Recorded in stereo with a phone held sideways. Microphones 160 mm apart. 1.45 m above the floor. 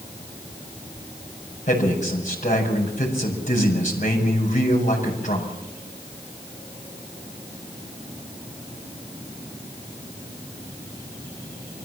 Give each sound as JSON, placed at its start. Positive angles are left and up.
{"t": 1.7, "sound": "a man speaking", "side_deg": 50, "distance_m": 6.0}